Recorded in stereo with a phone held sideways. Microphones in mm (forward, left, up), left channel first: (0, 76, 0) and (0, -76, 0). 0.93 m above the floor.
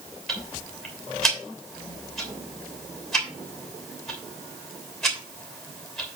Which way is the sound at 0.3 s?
5° left (ahead or behind).